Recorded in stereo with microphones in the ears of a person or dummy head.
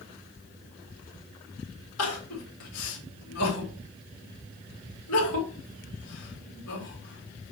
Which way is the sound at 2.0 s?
85° left.